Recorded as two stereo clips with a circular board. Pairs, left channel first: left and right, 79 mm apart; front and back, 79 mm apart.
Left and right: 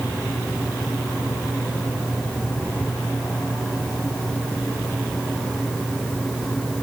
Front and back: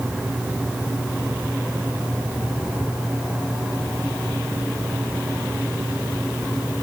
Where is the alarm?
I don't hear an alarm.